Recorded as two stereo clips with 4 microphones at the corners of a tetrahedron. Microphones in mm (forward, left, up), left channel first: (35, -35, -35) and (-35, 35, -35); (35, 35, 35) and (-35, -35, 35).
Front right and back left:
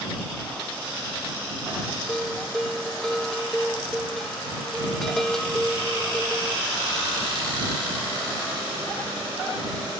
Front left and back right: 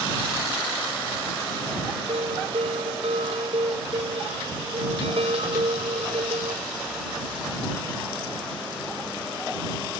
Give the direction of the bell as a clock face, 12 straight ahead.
4 o'clock.